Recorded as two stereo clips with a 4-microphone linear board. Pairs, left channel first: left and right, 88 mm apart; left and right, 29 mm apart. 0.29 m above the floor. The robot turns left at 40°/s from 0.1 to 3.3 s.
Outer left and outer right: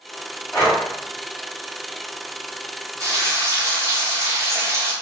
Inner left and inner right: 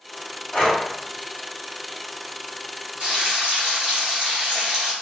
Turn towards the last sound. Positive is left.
turn(degrees=-35)  # may be behind; listen again after turning